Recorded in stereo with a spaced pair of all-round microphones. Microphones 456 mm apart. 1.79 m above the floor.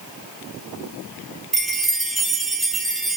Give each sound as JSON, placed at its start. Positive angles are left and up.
{"t": 1.5, "sound": "a chime", "side_deg": 0, "distance_m": 1.5}